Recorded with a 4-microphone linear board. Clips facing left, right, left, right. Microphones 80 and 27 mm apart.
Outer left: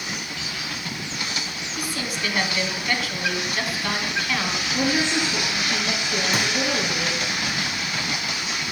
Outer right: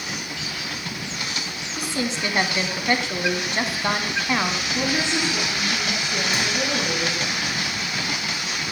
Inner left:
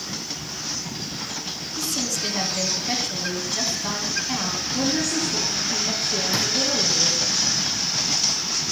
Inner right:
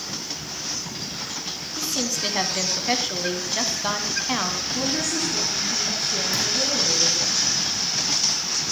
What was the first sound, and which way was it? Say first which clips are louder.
A woman speaking: outer right 4 dB, inner right 1 dB; 25° right (ahead or behind).